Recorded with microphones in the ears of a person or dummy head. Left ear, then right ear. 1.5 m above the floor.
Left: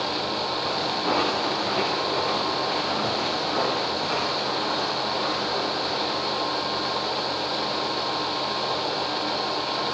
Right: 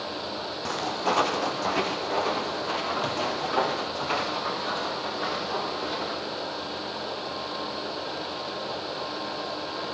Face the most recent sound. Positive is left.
turn(degrees=-80)